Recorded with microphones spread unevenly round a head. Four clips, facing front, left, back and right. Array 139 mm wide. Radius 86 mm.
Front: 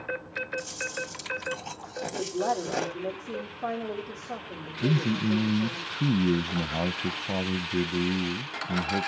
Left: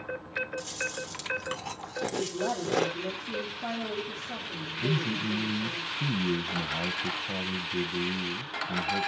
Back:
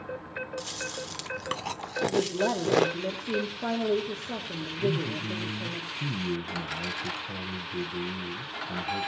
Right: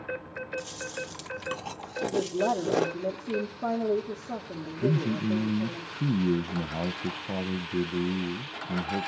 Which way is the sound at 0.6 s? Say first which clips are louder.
Even, front 2 dB; 160° right.